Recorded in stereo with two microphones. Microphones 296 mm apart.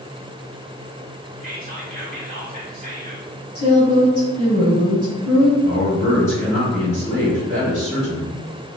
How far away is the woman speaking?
About 1.4 m.